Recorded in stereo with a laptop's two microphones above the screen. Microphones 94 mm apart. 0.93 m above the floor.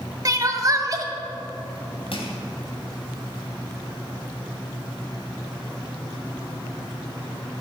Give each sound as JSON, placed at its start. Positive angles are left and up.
{"t": 0.2, "sound": "crying", "side_deg": -40, "distance_m": 1.3}
{"t": 2.1, "sound": "crushing", "side_deg": 70, "distance_m": 3.0}